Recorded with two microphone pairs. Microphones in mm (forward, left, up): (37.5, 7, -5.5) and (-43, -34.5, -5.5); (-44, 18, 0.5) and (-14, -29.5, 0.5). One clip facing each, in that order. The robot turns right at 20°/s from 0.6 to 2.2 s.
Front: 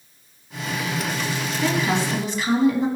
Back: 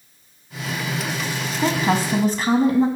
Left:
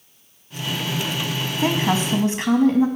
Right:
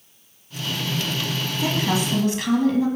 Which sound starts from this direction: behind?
A woman speaking, at 1.6 s.